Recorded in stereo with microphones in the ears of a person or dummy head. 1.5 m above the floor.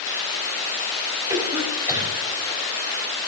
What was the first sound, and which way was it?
A cough, 20° right (ahead or behind).